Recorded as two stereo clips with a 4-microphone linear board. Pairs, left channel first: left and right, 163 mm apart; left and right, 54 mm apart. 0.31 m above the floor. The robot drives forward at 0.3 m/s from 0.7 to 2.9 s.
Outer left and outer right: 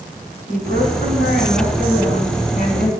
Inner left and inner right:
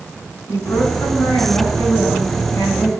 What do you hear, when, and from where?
0.5 s a woman speaking: 65° left (ahead or behind), 2.5 m; by 2.9 s 60° left (ahead or behind), 3 m